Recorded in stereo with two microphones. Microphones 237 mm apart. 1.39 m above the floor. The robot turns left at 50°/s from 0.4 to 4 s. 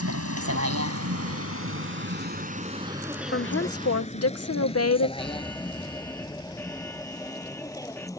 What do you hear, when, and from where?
0.0 s a vehicle: 85° right; by 8.2 s 15° left (ahead or behind)
3.3 s a woman speaking: 125° left; by 5.1 s 90° left
5.2 s an alarm: 10° left (ahead or behind)